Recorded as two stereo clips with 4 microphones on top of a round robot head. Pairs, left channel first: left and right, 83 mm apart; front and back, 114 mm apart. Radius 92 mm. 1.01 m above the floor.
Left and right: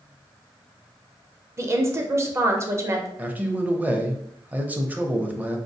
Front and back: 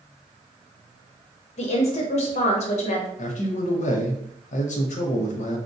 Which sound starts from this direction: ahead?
A man speaking, at 3.2 s.